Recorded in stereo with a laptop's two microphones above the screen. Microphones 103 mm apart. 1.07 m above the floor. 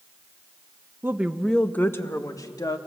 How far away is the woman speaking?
About 1.1 m.